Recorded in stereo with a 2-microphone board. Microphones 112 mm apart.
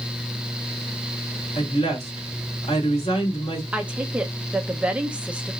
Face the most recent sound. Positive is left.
turn(degrees=-10)  # may be behind; listen again after turning